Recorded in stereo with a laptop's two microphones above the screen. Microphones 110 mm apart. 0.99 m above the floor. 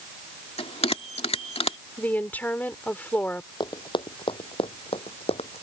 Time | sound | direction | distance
0.6 | a bell | 70° left (ahead or behind) | ?
2.0 | a woman speaking | 15° left (ahead or behind) | ?
3.6 | running footsteps | 45° left (ahead or behind) | ?